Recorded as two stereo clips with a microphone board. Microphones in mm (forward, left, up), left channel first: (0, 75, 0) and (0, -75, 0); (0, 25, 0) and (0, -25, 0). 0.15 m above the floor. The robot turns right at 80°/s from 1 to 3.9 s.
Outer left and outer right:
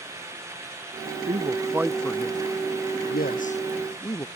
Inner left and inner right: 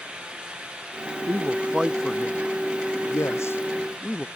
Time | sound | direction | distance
1.3 | a man speaking | 55° right (ahead or behind) | ?